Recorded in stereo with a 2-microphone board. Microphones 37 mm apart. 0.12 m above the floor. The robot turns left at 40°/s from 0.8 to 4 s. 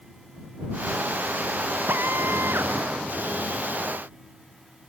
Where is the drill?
65° right; by 2.7 s 100° right.